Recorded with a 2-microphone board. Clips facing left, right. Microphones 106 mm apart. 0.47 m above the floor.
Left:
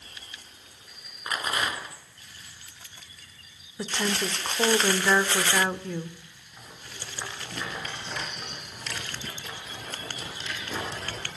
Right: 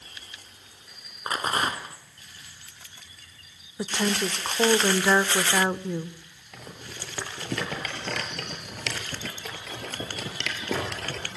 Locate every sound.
1.3 s a rattle: 35° right (ahead or behind), 3.5 m
3.8 s a woman speaking: 10° right (ahead or behind), 1.1 m
6.5 s a rattle: 80° right, 6 m